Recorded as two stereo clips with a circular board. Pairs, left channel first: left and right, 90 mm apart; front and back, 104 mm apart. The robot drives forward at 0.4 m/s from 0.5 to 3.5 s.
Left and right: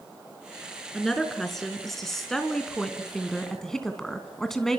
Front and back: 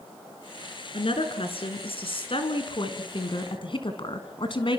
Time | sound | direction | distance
0.9 | a woman speaking | 5° left | 3.5 m